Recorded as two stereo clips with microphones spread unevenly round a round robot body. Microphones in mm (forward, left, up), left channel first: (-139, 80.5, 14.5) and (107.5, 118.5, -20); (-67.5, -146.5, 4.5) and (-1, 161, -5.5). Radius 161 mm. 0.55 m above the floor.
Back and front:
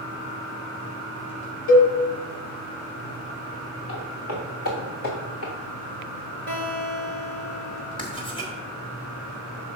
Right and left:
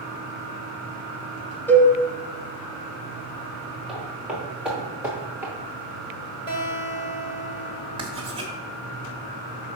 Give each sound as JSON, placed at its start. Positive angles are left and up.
{"t": 1.7, "sound": "a cowbell", "azimuth_deg": 175, "distance_m": 1.4}
{"t": 3.9, "sound": "footsteps", "azimuth_deg": 170, "distance_m": 3.0}
{"t": 6.5, "sound": "a guitar", "azimuth_deg": -175, "distance_m": 2.0}
{"t": 8.0, "sound": "writing", "azimuth_deg": 125, "distance_m": 1.3}